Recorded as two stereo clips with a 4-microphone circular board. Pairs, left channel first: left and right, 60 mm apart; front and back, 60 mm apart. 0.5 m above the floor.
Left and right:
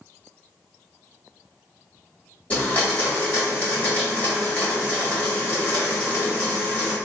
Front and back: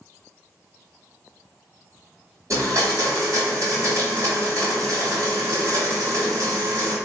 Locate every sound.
2.5 s a blender: 150° left, 1.9 m